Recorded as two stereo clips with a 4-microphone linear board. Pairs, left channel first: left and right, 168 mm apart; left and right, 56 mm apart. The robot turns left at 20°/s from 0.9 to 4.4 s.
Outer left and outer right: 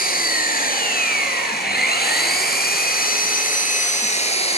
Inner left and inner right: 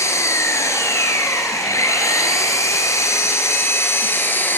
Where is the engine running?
110° left, 3.5 m; by 4.6 s 40° left, 3.5 m.